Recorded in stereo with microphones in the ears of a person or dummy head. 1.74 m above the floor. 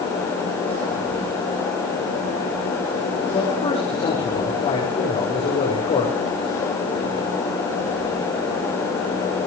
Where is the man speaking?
35° left (ahead or behind), 6 m.